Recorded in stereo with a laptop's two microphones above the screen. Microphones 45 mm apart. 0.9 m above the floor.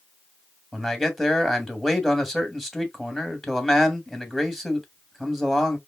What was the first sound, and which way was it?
A man speaking, 5° right (ahead or behind).